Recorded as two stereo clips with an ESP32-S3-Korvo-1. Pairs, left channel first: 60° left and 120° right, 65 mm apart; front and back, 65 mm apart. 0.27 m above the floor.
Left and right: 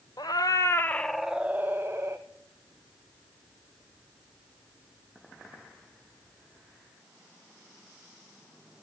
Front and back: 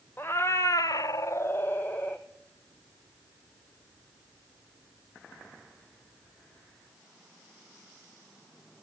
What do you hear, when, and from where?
0.2 s a cat meowing: 55° left, 0.8 m; by 2.2 s 70° right, 1.3 m